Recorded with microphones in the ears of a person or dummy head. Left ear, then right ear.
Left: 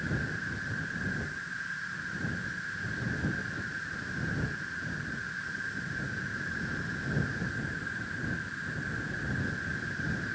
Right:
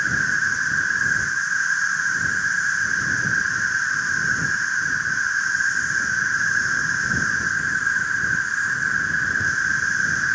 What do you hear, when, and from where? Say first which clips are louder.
0.0 s an insect: right 15 dB; 50° right (ahead or behind)